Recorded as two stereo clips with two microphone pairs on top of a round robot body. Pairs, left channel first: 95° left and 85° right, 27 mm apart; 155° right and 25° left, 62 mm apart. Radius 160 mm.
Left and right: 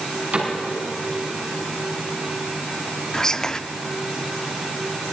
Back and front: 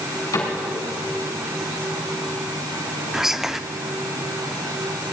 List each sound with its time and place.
0.3 s a cupboard door: 130° right, 5.5 m
3.1 s whispering: 80° left, 1.0 m